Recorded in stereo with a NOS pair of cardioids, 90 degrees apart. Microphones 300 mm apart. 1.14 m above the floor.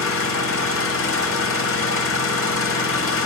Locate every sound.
0.0 s an engine running: 45° left, 0.9 m